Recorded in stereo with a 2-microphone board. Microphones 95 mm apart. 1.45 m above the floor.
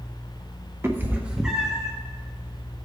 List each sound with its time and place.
0.8 s a cat meowing: 25° right (ahead or behind), 0.8 m; by 1.9 s 5° left (ahead or behind), 1.5 m